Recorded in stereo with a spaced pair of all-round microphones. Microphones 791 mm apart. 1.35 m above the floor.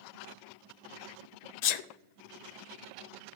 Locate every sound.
1.6 s a sneeze: 65° left (ahead or behind), 0.5 m